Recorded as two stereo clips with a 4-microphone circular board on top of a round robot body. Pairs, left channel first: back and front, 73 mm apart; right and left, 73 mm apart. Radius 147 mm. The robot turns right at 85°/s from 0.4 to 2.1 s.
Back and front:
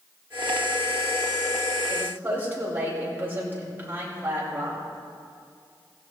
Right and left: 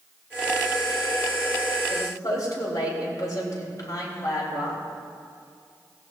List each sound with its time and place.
1.9 s a woman speaking: 80° right, 4 m; by 4.8 s 60° right, 4 m